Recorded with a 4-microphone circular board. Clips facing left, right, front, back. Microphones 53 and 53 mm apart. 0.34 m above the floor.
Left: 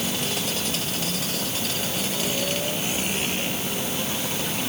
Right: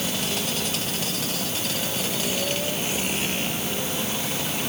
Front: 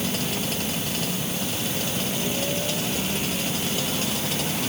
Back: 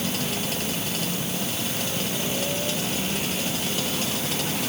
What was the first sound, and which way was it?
Only background noise.